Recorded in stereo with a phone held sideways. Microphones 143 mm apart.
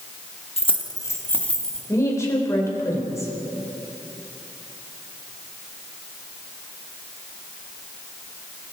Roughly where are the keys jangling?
Left.